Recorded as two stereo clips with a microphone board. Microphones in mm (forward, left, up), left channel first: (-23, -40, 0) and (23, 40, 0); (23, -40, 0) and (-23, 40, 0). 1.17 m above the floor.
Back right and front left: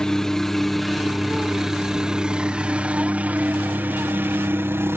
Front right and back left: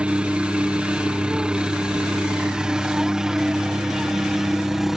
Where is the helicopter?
170° left; by 5.0 s 40° left.